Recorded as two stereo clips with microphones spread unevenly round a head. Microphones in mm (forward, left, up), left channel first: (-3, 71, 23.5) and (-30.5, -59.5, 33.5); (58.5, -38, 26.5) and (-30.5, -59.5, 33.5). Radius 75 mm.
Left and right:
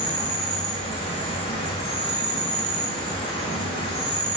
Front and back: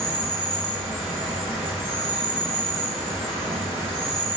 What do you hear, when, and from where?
0.0 s an insect: 115° left, 1.7 m